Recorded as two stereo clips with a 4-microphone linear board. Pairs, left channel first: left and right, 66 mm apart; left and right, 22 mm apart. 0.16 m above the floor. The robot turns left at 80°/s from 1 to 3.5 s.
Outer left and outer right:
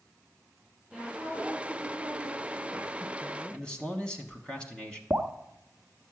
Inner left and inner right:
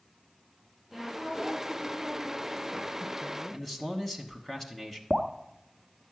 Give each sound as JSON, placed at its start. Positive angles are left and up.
{"t": 0.9, "sound": "a woman speaking", "azimuth_deg": 0, "distance_m": 3.5}
{"t": 3.5, "sound": "a man speaking", "side_deg": 15, "distance_m": 1.0}
{"t": 5.1, "sound": "dripping", "side_deg": -20, "distance_m": 0.7}